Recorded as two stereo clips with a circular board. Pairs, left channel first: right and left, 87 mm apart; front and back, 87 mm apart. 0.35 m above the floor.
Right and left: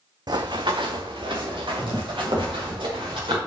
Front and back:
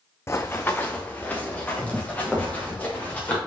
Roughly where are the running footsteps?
Ahead left.